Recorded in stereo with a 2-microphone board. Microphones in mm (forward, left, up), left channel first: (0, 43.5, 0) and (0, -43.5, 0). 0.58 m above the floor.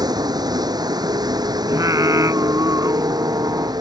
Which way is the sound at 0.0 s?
50° right (ahead or behind).